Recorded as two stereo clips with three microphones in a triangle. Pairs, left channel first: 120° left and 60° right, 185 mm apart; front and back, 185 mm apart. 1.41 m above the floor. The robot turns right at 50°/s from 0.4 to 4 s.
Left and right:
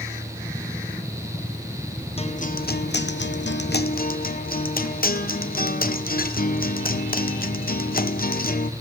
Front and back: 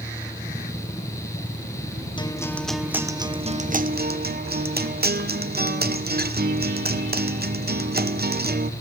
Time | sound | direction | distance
2.2 | a guitar | 60° left | 0.9 m